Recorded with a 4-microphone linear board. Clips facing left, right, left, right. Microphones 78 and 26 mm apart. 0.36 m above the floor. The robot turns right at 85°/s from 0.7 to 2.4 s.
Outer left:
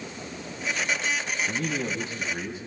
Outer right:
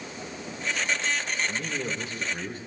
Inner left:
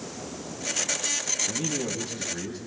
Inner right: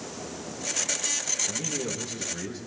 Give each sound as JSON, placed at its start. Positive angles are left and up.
{"t": 1.5, "sound": "a man speaking", "azimuth_deg": 90, "distance_m": 2.5}